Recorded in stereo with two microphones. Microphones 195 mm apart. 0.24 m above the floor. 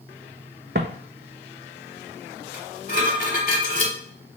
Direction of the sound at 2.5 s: 45° left (ahead or behind).